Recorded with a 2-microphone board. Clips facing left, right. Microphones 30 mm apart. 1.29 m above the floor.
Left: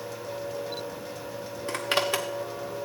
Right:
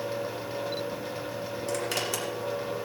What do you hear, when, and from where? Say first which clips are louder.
1.7 s a zipper: left 5 dB; 30° left (ahead or behind), 1.6 m